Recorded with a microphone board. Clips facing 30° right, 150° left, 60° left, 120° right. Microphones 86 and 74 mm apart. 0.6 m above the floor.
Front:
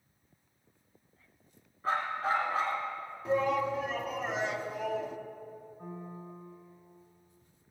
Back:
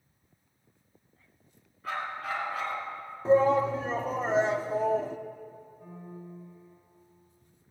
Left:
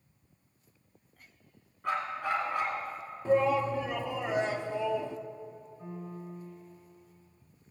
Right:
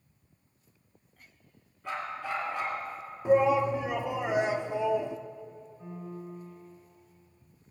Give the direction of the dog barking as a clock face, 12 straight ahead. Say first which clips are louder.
Front 3 dB, left 3 dB; 11 o'clock.